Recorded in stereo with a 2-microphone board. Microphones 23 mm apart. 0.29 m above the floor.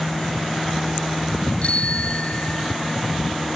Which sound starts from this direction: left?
A bicycle bell, at 1.6 s.